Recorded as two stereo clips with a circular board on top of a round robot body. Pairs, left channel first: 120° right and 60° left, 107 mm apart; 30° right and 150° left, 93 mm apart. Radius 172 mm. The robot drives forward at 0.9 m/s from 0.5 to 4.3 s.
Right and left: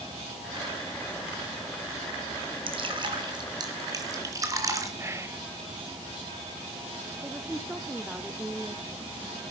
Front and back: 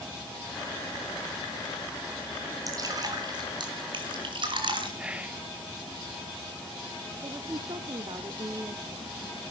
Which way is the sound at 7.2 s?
140° left.